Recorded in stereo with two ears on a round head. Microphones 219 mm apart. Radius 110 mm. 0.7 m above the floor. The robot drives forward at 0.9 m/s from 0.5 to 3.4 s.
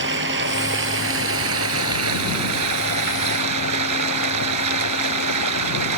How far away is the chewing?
I don't hear chewing.